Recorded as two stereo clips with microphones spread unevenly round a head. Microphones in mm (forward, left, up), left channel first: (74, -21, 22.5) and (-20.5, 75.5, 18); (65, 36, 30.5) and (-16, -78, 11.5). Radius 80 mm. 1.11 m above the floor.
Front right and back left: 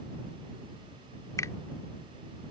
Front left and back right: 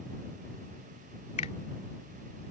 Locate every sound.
1.4 s a finger snap: 20° left